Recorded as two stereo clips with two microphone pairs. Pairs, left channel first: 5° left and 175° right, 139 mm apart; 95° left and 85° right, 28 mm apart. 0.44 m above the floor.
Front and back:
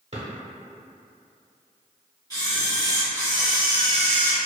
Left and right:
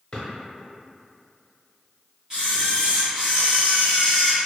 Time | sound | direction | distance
0.1 | a drawer | 155° left | 0.8 m
2.3 | a camera shutter | 35° right | 1.3 m